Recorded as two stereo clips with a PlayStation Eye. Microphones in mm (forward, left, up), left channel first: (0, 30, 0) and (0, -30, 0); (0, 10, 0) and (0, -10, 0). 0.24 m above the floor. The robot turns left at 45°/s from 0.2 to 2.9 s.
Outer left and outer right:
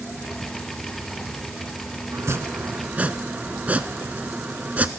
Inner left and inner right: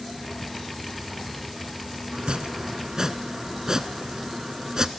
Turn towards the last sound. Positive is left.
turn(degrees=-150)